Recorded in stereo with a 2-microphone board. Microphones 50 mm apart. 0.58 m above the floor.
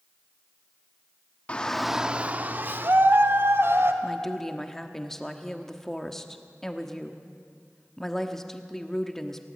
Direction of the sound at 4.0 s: 10° left (ahead or behind).